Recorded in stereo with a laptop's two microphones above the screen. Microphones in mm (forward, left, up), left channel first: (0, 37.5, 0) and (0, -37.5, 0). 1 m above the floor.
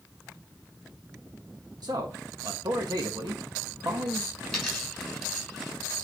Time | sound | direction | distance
1.8 | a man speaking | 65° right (ahead or behind) | 1.3 m
4.4 | a dropped coin | 5° right (ahead or behind) | 6 m